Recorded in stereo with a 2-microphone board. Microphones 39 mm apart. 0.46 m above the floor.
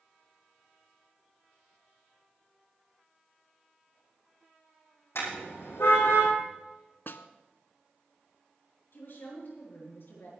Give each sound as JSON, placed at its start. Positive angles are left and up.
{"t": 5.2, "sound": "a car horn", "side_deg": 90, "distance_m": 8.5}
{"t": 7.1, "sound": "a snare drum", "side_deg": 60, "distance_m": 0.9}
{"t": 8.9, "sound": "a woman speaking", "side_deg": 60, "distance_m": 6.5}